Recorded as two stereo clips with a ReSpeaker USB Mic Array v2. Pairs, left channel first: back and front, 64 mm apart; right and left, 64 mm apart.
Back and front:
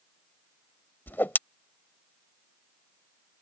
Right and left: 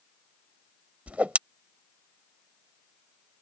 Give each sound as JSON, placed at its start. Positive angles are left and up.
{"t": 1.1, "sound": "a whoosh", "azimuth_deg": 145}